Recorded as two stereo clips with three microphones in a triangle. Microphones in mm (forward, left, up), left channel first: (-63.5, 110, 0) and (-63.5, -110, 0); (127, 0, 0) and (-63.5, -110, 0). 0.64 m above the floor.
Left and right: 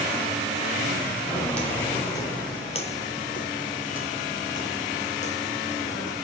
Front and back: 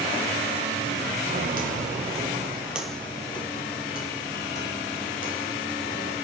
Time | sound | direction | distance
1.3 | footsteps | 175° left | 1.2 m